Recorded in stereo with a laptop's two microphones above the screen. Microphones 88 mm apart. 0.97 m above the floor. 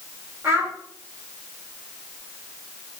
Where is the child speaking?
30° right (ahead or behind), 1.5 m.